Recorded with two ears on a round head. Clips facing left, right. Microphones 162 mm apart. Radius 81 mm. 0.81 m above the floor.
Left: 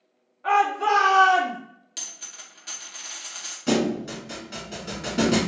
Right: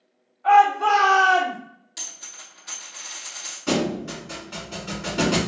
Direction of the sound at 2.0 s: 40° left (ahead or behind).